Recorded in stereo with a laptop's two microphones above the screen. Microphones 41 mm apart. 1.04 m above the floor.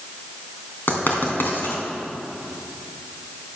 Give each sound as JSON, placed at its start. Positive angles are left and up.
{"t": 0.9, "sound": "writing", "side_deg": 50, "distance_m": 3.0}